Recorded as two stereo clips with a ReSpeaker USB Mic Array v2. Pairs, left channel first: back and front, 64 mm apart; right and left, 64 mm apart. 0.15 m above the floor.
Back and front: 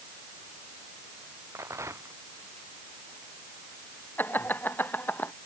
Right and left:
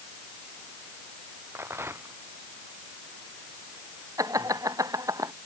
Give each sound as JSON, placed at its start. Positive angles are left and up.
{"t": 1.6, "sound": "a rattle", "azimuth_deg": 40}
{"t": 4.2, "sound": "laughter", "azimuth_deg": 120}